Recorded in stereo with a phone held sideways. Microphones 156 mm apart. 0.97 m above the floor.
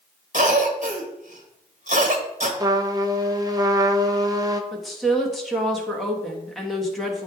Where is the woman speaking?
Centre (ahead or behind), 1.2 m.